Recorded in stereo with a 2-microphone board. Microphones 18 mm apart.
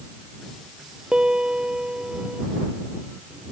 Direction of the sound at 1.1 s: 55° right (ahead or behind).